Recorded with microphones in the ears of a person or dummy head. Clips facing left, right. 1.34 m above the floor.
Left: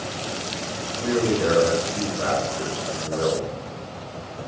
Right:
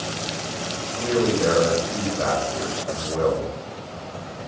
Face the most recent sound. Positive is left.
turn(degrees=-35)  # may be behind; listen again after turning